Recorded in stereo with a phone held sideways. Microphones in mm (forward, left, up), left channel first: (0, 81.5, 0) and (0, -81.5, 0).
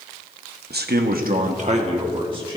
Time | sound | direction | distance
0.7 | a man speaking | 80° right | 1.0 m